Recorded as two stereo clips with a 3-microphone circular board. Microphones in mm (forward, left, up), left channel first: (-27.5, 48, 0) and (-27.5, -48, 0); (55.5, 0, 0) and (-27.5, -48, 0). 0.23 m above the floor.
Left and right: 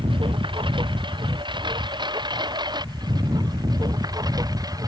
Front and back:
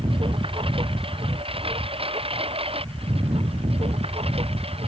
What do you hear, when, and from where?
0.0 s a lawn mower: 125° right; by 4.9 s 140° right